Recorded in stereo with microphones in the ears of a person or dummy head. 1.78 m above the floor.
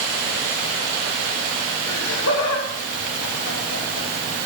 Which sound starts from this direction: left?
Laughter, at 1.9 s.